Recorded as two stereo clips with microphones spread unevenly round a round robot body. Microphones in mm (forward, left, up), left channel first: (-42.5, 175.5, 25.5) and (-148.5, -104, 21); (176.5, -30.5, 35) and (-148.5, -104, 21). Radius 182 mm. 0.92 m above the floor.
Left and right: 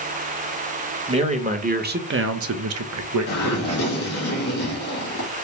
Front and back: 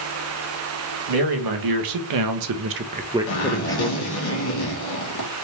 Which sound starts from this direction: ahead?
A zipper, at 3.3 s.